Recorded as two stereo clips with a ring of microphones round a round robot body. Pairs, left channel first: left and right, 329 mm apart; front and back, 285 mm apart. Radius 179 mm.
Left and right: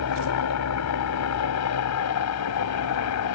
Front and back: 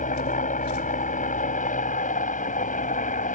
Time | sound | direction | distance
0.0 | a helicopter | 60° left | ?